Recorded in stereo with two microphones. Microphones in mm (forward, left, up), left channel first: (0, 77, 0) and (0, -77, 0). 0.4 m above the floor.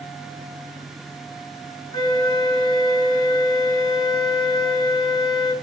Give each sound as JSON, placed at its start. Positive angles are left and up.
{"t": 1.9, "sound": "a flute", "side_deg": 30, "distance_m": 1.6}